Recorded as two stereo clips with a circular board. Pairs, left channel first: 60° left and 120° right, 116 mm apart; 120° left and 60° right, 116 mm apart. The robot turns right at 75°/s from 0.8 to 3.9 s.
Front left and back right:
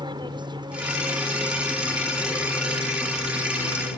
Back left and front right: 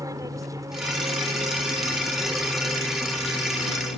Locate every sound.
0.0 s an aircraft: 105° right; by 4.0 s 130° left